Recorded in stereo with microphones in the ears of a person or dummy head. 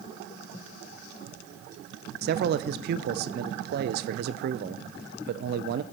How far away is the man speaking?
About 0.6 m.